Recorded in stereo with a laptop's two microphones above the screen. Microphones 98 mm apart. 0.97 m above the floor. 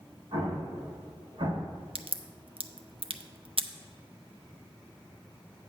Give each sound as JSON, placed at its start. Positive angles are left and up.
{"t": 0.3, "sound": "an explosion", "side_deg": -60, "distance_m": 1.5}
{"t": 1.9, "sound": "a crack", "side_deg": -65, "distance_m": 0.5}